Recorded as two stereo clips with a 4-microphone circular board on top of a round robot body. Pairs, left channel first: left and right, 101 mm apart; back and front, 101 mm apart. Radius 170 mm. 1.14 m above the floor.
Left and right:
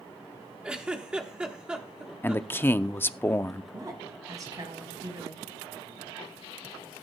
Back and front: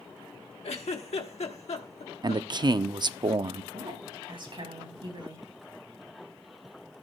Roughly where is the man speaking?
Ahead left.